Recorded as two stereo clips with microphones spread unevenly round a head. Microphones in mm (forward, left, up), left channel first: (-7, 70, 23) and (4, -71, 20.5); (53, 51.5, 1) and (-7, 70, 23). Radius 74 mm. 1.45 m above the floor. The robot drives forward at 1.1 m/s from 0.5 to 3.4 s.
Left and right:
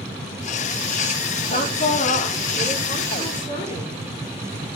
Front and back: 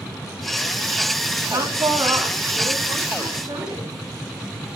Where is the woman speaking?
135° left, 3 m; by 4.0 s 150° left, 4.5 m.